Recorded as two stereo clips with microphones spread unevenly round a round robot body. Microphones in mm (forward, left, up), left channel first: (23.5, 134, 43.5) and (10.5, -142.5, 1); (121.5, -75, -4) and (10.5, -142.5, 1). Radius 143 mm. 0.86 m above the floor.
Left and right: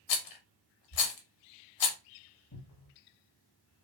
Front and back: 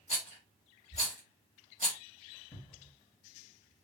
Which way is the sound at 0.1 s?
90° left.